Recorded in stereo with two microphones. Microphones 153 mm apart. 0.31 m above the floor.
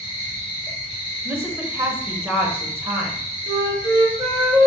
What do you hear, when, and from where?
0.0 s an insect: 45° right (ahead or behind), 1.5 m
1.2 s a woman speaking: 15° right (ahead or behind), 0.9 m
3.5 s a flute: 35° right (ahead or behind), 1.6 m